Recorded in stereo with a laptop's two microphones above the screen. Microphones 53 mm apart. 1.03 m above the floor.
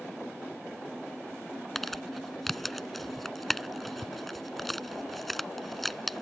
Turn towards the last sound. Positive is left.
turn(degrees=0)  # may be behind; listen again after turning